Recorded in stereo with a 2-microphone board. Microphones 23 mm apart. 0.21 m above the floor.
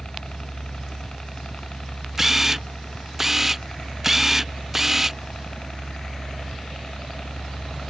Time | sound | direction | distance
0.0 | a helicopter | 40° left (ahead or behind) | ?
2.2 | a camera shutter | 10° right (ahead or behind) | ?